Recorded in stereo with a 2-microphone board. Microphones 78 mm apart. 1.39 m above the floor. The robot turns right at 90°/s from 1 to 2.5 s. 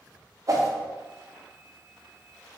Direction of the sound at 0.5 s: 45° right (ahead or behind).